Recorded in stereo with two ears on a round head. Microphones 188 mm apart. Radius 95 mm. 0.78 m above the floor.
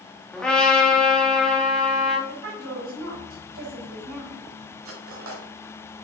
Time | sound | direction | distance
0.3 | a trumpet | 5° left (ahead or behind) | 1.5 m
2.3 | a woman speaking | 75° right (ahead or behind) | 3.5 m
4.8 | cutlery clinking | 75° right (ahead or behind) | 2.0 m